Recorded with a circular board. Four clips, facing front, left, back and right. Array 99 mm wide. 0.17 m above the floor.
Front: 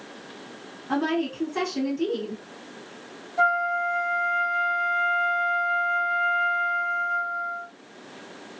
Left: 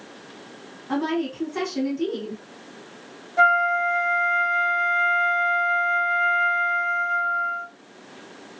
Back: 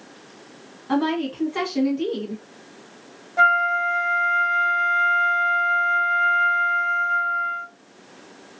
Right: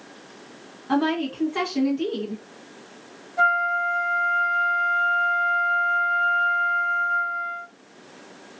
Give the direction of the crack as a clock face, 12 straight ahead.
I don't hear a crack.